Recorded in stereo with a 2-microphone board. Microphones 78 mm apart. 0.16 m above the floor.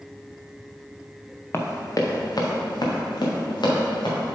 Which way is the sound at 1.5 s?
35° left (ahead or behind).